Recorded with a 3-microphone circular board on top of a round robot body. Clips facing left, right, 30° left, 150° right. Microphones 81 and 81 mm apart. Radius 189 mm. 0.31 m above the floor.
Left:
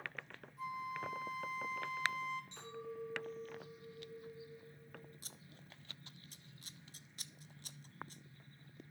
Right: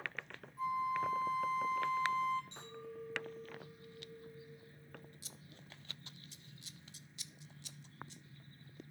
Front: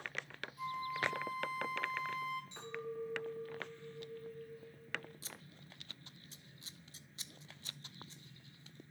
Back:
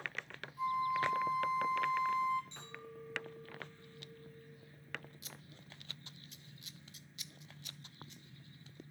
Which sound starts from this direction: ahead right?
A clink, at 2.5 s.